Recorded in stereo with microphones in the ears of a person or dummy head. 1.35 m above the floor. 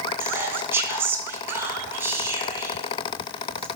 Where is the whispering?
10° right (ahead or behind), 0.5 m.